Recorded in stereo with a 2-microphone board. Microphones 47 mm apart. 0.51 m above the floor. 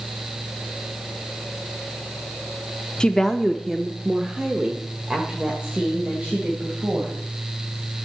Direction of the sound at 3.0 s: 20° left (ahead or behind).